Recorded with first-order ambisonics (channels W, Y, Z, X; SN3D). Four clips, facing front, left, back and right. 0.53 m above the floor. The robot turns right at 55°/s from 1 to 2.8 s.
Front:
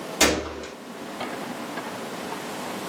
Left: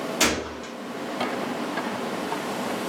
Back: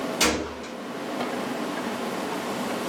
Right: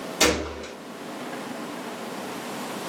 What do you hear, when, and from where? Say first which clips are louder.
0.2 s a gunshot: right 3 dB, front 4 dB; 25° left, 1.2 m